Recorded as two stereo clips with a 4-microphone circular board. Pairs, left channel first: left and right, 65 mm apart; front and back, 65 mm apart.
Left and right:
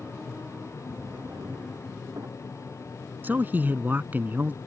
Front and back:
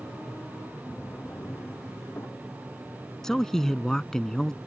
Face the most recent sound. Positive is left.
turn(degrees=-75)